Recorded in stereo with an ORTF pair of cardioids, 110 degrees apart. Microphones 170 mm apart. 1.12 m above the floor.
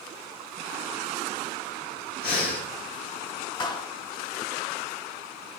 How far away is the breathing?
About 2.5 m.